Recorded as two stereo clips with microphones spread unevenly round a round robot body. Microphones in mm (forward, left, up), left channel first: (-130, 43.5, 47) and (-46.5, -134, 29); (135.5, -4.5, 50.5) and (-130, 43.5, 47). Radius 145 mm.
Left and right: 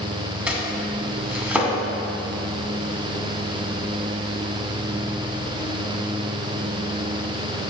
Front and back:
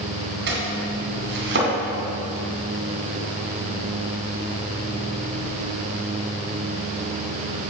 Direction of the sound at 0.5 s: 145° right.